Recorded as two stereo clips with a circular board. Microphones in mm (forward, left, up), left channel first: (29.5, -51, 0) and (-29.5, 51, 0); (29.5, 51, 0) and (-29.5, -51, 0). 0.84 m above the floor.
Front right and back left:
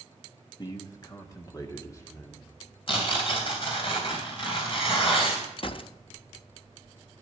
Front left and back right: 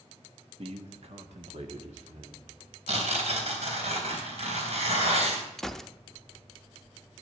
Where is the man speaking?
105° right, 1.3 m; by 2.8 s 125° right, 2.5 m.